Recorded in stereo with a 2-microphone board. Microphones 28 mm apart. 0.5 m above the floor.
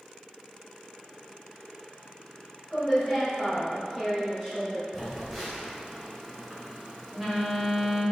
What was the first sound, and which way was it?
A woman speaking, 5° left (ahead or behind).